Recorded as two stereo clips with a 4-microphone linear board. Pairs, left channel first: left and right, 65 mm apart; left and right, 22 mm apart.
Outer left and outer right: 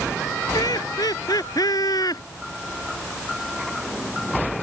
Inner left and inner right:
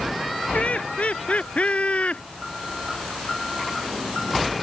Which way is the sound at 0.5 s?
80° left.